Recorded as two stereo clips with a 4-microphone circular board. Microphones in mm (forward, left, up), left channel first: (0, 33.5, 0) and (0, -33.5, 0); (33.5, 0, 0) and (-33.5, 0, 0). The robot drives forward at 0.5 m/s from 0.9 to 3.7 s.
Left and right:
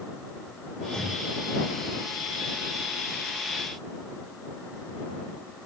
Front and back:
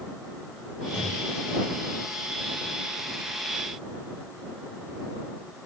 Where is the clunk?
5° left, 6.5 m.